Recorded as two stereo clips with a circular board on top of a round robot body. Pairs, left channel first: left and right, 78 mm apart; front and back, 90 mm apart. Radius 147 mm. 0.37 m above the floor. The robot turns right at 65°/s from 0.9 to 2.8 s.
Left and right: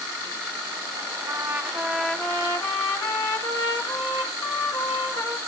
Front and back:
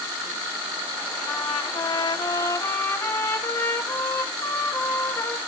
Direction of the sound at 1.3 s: 35° right.